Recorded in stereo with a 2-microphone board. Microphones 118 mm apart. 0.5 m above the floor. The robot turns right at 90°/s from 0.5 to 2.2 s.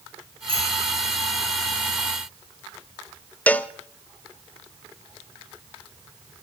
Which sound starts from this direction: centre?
A cowbell, at 3.5 s.